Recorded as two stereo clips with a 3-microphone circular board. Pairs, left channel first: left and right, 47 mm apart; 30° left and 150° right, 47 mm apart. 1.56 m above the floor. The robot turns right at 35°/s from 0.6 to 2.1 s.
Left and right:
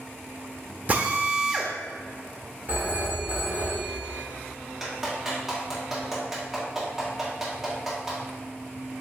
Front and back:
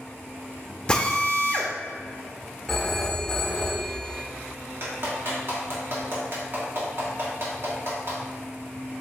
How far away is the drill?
About 0.7 m.